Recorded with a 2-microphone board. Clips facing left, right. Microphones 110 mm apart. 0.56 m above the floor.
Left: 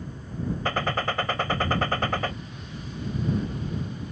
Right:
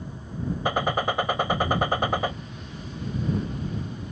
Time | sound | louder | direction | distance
0.7 | a gunshot | right 3 dB | 15° right (ahead or behind) | ?